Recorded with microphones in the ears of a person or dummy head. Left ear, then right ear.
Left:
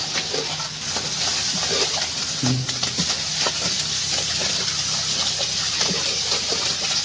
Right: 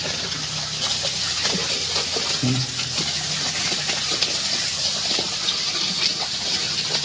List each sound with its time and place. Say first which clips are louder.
2.4 s breathing: even; 55° right (ahead or behind), 2 m